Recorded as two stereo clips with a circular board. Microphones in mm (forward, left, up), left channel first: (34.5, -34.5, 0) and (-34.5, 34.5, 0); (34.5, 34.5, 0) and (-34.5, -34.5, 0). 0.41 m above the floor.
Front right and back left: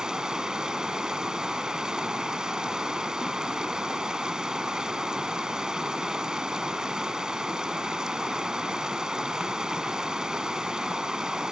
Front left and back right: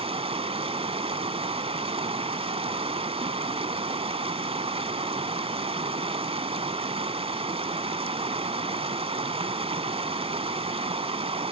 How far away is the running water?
About 1.2 m.